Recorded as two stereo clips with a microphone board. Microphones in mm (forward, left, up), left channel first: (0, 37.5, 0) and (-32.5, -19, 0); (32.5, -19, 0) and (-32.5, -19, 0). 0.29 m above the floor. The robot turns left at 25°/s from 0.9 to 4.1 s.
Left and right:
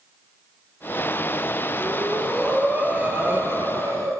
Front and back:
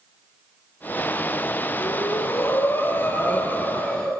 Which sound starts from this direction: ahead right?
Breathing, at 1.8 s.